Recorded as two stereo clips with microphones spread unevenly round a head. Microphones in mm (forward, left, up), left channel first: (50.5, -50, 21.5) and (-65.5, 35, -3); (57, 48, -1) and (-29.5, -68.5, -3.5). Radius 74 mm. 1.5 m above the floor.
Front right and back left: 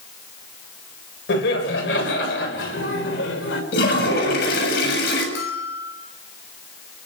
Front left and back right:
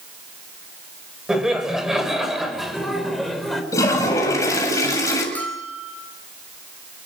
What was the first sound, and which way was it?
Laughter, 40° right.